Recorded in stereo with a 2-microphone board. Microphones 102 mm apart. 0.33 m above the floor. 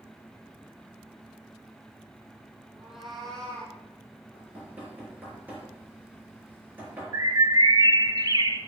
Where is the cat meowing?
10° right (ahead or behind), 2 m; by 3.8 s 15° left (ahead or behind), 3 m.